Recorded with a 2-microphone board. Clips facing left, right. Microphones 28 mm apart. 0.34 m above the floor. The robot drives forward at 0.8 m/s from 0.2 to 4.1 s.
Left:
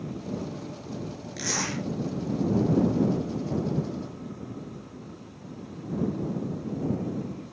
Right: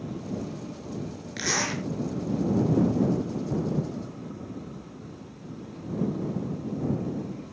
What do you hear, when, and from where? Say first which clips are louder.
1.4 s a zipper: right 2 dB; 30° right (ahead or behind), 6 m